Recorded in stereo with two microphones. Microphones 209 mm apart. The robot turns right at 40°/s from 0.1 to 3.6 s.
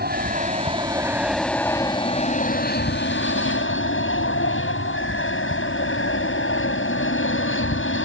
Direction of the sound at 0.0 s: 50° right.